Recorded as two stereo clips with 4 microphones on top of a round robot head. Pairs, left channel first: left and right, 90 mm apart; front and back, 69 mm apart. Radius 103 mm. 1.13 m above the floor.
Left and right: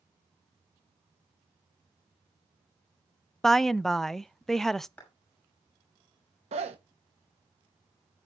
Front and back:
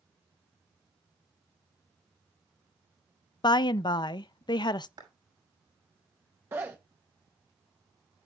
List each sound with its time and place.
3.4 s a woman speaking: 5° left, 0.5 m
5.0 s a clap: 165° left, 6 m
6.5 s a zipper: 115° right, 0.8 m